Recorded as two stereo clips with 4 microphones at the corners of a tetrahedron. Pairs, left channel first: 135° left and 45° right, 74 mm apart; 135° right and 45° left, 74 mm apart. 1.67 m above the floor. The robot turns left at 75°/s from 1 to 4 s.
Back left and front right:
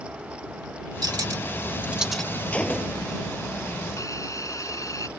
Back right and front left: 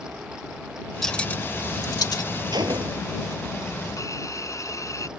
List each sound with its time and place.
1.0 s cutlery clinking: 50° right; by 2.2 s 140° right
2.5 s a gunshot: 65° left; by 3.1 s 20° left
4.0 s a hiss: straight behind